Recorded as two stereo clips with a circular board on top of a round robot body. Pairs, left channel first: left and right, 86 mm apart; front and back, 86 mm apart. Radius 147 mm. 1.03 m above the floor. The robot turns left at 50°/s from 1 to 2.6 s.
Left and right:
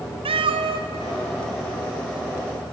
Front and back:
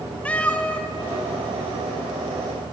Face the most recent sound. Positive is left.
turn(degrees=-155)